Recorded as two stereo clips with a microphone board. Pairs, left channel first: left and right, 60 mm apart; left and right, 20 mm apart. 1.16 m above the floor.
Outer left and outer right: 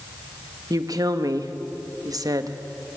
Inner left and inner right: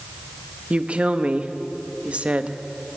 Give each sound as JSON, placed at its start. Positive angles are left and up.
{"t": 0.7, "sound": "a woman speaking", "side_deg": -75, "distance_m": 1.1}